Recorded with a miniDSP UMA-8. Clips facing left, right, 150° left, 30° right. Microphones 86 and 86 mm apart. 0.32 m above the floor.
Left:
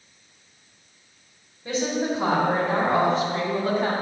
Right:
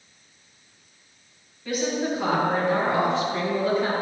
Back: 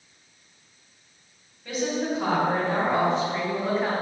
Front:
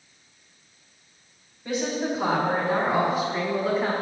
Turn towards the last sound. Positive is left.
turn(degrees=60)